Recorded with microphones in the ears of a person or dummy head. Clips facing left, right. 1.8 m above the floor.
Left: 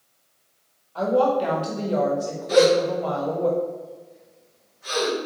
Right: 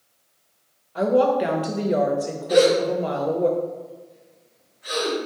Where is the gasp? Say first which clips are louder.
Even; 60° left (ahead or behind), 2.0 m.